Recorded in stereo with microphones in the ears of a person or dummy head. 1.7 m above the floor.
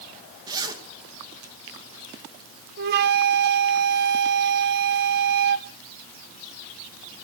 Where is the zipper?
20° right (ahead or behind), 2.5 m.